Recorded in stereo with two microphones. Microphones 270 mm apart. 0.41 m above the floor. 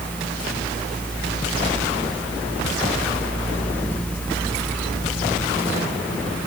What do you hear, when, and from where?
Only background noise.